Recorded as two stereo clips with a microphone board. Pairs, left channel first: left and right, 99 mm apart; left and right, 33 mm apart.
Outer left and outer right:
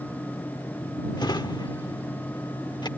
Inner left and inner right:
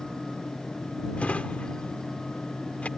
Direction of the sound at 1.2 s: 45° left (ahead or behind).